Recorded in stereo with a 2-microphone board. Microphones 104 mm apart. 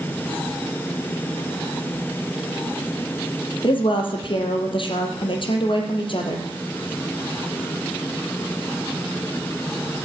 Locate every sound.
3.6 s a woman speaking: 55° left (ahead or behind), 4 m